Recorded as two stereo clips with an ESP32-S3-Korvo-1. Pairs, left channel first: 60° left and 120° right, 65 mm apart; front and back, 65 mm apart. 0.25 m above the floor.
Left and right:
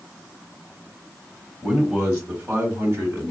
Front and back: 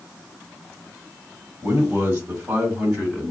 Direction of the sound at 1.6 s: Straight behind.